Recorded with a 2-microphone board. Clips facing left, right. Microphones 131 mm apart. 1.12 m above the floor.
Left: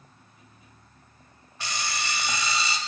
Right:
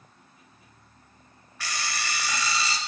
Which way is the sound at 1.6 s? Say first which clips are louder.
Left 1 dB; 20° left (ahead or behind).